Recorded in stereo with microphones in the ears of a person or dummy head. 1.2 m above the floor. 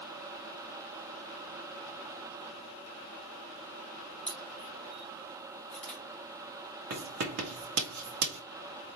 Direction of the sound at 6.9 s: 55° right (ahead or behind).